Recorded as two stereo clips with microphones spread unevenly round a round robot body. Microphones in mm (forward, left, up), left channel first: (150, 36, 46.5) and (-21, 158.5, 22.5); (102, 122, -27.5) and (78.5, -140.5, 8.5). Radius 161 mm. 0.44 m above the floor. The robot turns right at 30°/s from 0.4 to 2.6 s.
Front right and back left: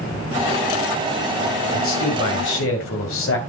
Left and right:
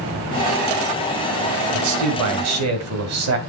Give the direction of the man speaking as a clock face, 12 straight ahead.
3 o'clock.